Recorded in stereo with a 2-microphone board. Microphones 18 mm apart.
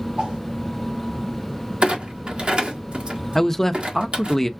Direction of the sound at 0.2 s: 75° right (ahead or behind).